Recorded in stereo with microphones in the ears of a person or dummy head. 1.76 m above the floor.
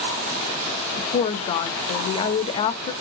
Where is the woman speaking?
35° left (ahead or behind), 0.5 m.